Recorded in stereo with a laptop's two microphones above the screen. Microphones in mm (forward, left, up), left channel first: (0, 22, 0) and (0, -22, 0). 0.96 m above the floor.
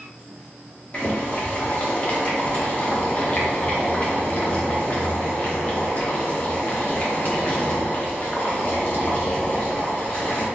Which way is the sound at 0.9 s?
35° left (ahead or behind).